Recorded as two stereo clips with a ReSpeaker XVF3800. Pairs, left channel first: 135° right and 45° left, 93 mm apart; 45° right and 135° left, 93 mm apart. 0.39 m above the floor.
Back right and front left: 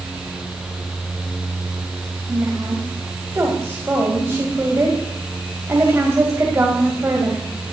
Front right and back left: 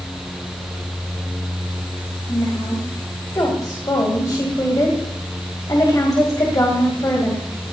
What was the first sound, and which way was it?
A woman speaking, 10° right.